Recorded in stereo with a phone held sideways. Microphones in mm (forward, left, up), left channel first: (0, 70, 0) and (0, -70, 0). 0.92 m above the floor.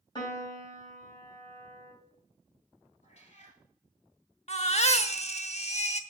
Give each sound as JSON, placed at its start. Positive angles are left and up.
{"t": 0.1, "sound": "a piano", "side_deg": 30, "distance_m": 2.5}
{"t": 3.0, "sound": "a cat meowing", "side_deg": 50, "distance_m": 3.5}
{"t": 4.5, "sound": "a baby crying", "side_deg": 50, "distance_m": 0.8}